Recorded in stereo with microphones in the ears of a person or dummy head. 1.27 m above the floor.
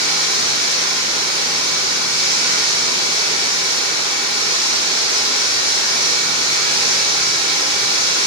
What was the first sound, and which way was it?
Running water, 60° left (ahead or behind).